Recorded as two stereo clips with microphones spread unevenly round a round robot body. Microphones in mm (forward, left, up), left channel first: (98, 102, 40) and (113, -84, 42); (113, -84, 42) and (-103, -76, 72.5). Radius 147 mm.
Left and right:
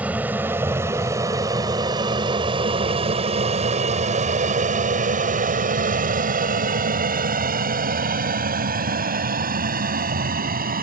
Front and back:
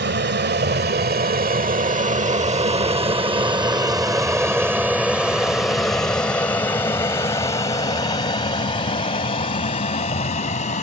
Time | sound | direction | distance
0.0 | an aircraft | 165° right | ?